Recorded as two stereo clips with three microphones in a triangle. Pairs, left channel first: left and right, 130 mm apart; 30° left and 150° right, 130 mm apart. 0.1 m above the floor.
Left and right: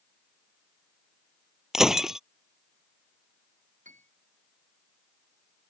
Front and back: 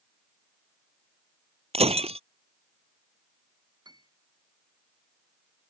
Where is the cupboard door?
No cupboard door in this recording.